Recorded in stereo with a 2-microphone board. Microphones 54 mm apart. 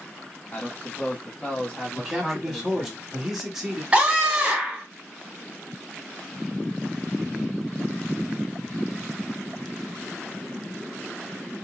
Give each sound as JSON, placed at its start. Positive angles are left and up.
{"t": 0.5, "sound": "a man speaking", "side_deg": 30, "distance_m": 1.2}
{"t": 1.9, "sound": "a man speaking", "side_deg": -5, "distance_m": 1.0}
{"t": 3.9, "sound": "a scream", "side_deg": -20, "distance_m": 1.3}